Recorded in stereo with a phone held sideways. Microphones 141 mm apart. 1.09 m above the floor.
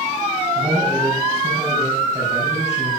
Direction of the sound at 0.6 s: 30° right (ahead or behind).